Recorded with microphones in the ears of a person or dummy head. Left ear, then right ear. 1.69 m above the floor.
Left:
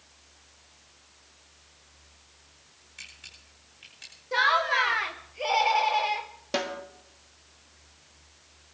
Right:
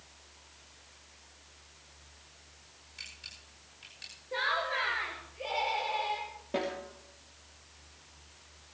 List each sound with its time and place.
3.0 s a camera shutter: 20° left (ahead or behind), 6.5 m
4.3 s laughter: 45° left (ahead or behind), 1.0 m
6.5 s a snare drum: 70° left (ahead or behind), 2.5 m